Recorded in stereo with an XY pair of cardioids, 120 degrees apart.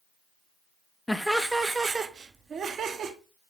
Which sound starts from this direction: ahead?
Laughter, at 1.1 s.